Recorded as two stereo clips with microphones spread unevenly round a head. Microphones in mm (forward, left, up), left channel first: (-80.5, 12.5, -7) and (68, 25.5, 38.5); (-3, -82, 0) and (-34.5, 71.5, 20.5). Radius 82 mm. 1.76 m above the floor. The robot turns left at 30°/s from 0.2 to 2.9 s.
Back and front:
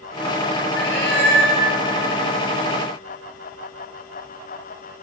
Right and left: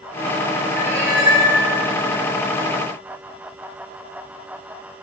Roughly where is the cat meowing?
Behind.